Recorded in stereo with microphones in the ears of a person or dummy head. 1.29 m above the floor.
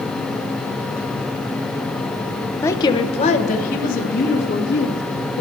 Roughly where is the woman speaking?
Centre.